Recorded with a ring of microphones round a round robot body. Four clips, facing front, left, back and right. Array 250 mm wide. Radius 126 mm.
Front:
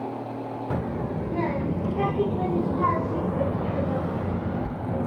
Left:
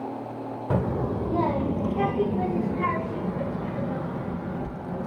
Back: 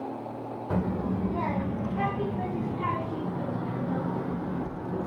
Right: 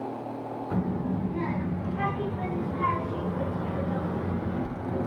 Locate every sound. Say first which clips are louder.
0.7 s a child speaking: left 4 dB, back 2 dB; 75° left, 1.7 m; by 5.1 s 10° right, 2.5 m